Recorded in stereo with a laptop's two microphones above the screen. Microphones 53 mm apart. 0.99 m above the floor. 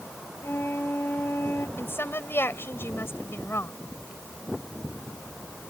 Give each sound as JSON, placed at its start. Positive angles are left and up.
{"t": 0.4, "sound": "a flute", "side_deg": 45}
{"t": 1.8, "sound": "a woman speaking", "side_deg": 45}